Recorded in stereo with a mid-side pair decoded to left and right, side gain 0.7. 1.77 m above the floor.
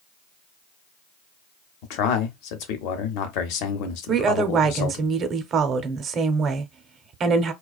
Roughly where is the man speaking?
Left.